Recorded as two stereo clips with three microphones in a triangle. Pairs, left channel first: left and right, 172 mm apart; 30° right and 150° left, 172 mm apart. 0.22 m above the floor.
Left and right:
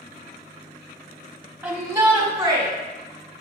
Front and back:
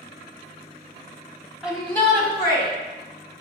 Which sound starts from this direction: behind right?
A shout, at 1.6 s.